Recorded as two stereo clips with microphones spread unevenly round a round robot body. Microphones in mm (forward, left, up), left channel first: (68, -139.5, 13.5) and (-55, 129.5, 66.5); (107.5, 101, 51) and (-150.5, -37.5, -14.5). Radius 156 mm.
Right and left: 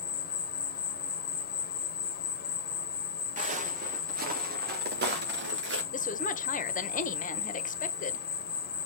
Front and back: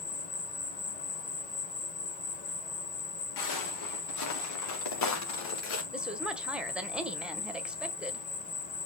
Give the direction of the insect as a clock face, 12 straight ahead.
1 o'clock.